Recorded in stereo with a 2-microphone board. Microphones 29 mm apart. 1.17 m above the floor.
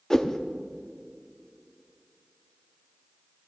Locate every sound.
0.1 s a whoosh: 20° left (ahead or behind), 0.6 m